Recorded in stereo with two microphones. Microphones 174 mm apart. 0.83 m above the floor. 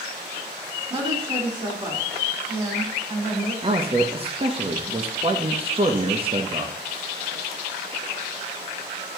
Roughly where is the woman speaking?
Right.